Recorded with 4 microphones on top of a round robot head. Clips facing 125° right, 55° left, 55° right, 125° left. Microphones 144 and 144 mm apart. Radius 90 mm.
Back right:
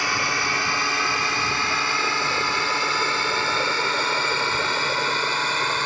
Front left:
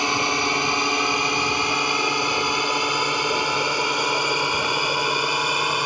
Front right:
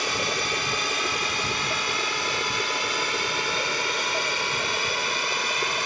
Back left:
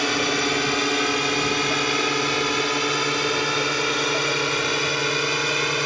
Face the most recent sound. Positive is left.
turn(degrees=130)